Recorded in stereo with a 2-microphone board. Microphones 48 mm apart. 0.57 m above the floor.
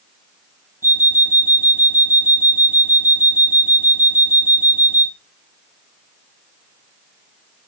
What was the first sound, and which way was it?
An alarm clock, 50° right (ahead or behind).